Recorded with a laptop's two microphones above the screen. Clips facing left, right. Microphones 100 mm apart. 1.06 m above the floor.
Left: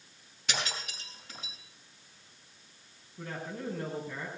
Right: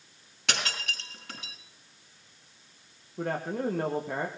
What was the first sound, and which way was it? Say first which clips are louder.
Breaking glass: right 3 dB; 75° right (ahead or behind).